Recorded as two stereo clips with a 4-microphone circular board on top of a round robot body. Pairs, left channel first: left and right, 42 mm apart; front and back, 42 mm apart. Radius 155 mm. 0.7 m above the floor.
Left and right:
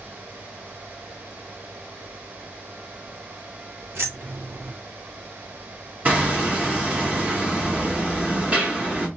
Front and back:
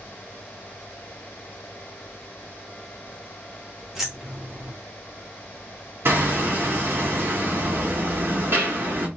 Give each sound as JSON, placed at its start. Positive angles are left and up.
{"t": 3.9, "sound": "keys jangling", "azimuth_deg": -100, "distance_m": 1.5}
{"t": 6.0, "sound": "hammering", "azimuth_deg": -145, "distance_m": 1.6}